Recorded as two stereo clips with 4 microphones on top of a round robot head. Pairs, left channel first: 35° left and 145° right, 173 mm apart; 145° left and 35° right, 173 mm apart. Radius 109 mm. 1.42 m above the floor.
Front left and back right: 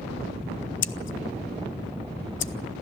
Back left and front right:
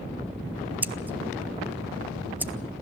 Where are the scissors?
45° left, 1.0 m.